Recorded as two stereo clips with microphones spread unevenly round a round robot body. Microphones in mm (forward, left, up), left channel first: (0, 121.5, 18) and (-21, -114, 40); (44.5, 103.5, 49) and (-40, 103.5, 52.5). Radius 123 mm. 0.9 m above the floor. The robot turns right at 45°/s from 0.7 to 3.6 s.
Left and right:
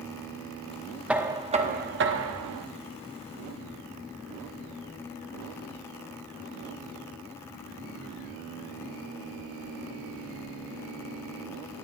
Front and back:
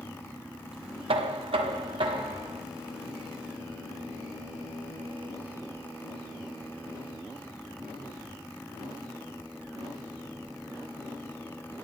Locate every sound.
1.1 s knocking: straight behind, 0.9 m; by 2.7 s 110° right, 0.9 m